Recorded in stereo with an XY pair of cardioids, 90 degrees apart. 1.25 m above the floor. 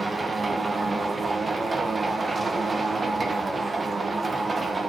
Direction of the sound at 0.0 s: 30° right.